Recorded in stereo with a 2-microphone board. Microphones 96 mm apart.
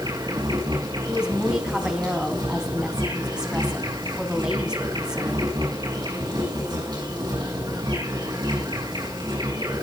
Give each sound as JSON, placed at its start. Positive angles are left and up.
{"t": 0.0, "sound": "an insect", "side_deg": -55, "distance_m": 6.0}
{"t": 1.1, "sound": "a woman speaking", "side_deg": -10, "distance_m": 3.5}